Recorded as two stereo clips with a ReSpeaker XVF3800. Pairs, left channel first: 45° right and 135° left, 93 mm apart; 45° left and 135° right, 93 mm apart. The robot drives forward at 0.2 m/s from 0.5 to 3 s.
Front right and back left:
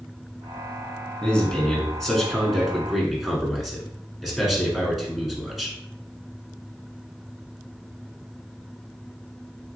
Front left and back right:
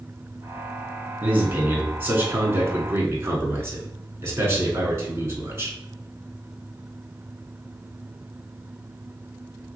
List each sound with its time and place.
1.2 s a man speaking: 110° right, 1.3 m; by 5.8 s 140° right, 1.4 m